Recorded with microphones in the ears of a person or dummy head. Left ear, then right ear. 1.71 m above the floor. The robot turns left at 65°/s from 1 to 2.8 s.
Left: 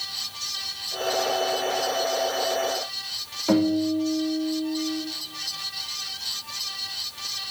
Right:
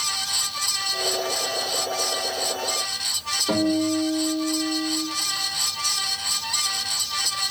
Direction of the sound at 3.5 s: 80° left.